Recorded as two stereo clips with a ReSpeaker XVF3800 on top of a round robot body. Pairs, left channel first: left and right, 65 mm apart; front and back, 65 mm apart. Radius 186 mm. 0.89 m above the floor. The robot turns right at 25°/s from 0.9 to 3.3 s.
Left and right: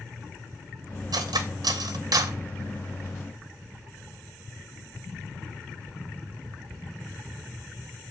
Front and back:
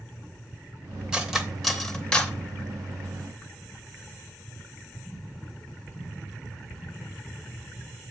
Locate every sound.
1.1 s cutlery clinking: 100° right, 0.7 m; by 2.4 s 70° right, 0.7 m